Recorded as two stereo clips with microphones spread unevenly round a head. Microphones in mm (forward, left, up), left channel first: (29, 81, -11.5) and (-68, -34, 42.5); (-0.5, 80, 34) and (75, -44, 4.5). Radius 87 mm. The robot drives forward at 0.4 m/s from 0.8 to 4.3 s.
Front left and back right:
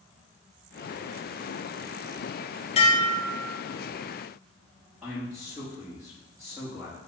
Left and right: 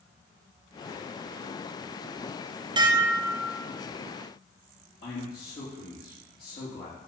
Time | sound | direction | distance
2.8 | dishes clattering | 10° right | 0.7 m
5.0 | a man speaking | 145° left | 3 m